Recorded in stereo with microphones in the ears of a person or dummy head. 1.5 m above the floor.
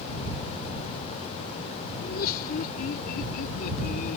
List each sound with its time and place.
2.0 s laughter: 65° left (ahead or behind); by 4.2 s 60° left (ahead or behind)